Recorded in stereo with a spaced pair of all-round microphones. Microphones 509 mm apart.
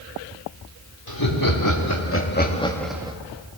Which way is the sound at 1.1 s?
45° left (ahead or behind).